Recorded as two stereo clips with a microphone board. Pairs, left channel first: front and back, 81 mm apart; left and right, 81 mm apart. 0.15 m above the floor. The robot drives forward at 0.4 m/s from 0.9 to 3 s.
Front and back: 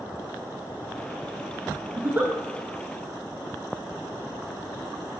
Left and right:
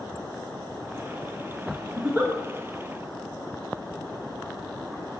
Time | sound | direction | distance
2.0 | a giggle | 135° right | 0.8 m